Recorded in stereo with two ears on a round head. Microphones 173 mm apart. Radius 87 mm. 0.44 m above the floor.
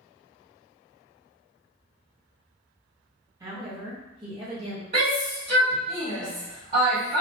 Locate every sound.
3.4 s a woman speaking: 15° right (ahead or behind), 0.8 m; by 4.8 s 25° right (ahead or behind), 1.3 m
4.9 s a shout: 35° right (ahead or behind), 1.5 m